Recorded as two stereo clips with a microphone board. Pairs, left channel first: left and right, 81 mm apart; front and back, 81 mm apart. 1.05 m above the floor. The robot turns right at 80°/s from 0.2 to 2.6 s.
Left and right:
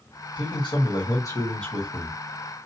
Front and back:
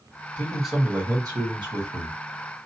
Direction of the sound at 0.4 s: 70° left.